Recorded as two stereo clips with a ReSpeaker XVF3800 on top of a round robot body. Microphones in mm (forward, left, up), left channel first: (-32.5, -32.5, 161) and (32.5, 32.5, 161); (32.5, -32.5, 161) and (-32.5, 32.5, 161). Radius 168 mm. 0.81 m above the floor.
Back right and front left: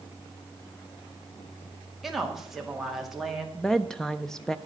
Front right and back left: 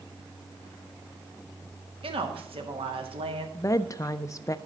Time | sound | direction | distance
2.0 | a woman speaking | 135° left | 2.5 m
3.5 | a woman speaking | 55° right | 0.6 m